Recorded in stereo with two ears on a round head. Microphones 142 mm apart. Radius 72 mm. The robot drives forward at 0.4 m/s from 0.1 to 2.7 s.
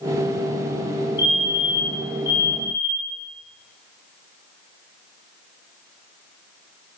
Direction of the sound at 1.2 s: 25° left (ahead or behind).